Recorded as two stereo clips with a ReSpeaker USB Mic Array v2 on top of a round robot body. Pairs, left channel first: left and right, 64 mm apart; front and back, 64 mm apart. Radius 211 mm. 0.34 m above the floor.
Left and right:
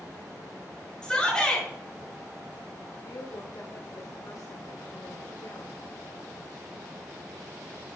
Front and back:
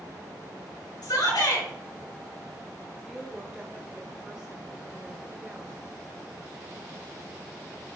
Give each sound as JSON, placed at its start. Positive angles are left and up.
{"t": 1.0, "sound": "a shout", "azimuth_deg": 10, "distance_m": 6.5}
{"t": 3.0, "sound": "a woman speaking", "azimuth_deg": 100, "distance_m": 1.6}